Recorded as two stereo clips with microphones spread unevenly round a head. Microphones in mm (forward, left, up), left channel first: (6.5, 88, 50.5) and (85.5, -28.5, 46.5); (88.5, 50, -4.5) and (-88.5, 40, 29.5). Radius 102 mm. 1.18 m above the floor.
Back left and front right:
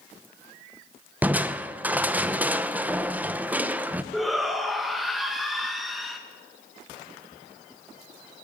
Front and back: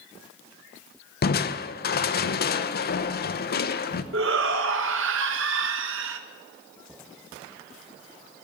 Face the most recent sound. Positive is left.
turn(degrees=-145)